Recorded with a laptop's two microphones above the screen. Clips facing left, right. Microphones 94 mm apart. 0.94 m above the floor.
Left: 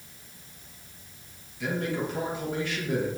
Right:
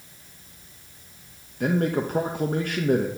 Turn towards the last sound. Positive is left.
turn(degrees=-50)  # may be behind; listen again after turning